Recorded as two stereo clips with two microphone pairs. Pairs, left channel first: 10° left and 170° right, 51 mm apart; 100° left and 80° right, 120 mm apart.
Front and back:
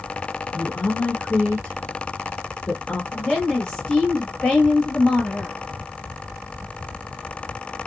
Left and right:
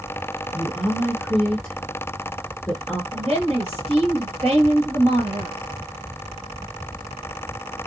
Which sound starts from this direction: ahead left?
A woman speaking, at 0.5 s.